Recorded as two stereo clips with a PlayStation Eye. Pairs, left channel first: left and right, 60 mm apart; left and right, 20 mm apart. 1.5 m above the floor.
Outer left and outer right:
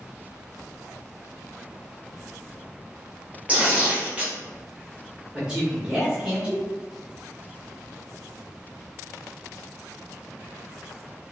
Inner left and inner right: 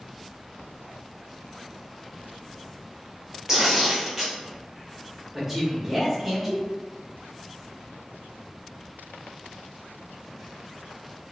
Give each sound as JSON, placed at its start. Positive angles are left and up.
{"t": 3.5, "sound": "tearing paper", "side_deg": -20, "distance_m": 0.8}
{"t": 5.3, "sound": "a man speaking", "side_deg": -15, "distance_m": 1.3}